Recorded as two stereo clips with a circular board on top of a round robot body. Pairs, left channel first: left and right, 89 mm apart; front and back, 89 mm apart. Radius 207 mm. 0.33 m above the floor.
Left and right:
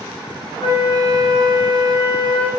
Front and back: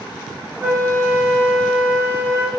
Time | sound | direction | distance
0.6 | a flute | 115° left | 1.0 m